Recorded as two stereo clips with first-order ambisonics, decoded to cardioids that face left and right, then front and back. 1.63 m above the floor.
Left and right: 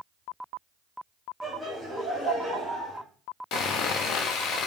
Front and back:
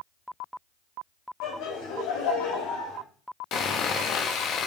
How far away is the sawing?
About 0.6 m.